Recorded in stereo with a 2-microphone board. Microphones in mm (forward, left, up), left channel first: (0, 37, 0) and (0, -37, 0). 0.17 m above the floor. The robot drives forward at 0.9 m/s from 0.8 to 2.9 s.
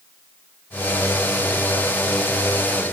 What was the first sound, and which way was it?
Only background noise.